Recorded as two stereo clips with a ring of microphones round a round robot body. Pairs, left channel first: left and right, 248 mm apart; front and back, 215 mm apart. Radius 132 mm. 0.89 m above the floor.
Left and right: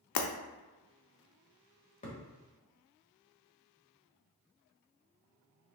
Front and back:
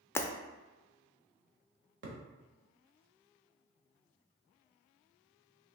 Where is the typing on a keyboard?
No typing on a keyboard in this recording.